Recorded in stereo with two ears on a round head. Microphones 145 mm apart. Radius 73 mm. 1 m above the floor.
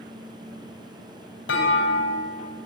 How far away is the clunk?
About 5 m.